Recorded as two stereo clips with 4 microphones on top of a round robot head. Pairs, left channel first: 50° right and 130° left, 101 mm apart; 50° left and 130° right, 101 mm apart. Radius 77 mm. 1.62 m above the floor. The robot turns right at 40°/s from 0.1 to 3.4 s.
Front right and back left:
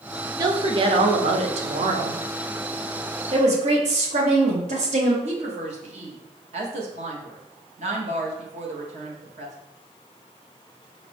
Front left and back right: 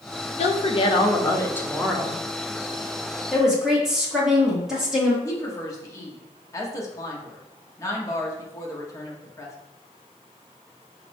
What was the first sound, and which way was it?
A woman speaking, 75° left.